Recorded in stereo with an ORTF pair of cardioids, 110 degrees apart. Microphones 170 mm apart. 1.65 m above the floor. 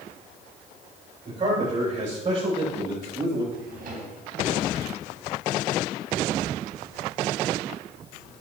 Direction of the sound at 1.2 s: 40° right.